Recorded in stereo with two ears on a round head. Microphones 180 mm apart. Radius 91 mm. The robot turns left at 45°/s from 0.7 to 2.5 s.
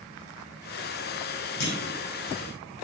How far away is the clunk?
About 1.8 m.